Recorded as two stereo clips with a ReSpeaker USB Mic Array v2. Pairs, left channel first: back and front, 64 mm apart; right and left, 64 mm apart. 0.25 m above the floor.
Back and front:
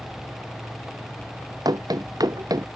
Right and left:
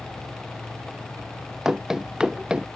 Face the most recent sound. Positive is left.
turn(degrees=15)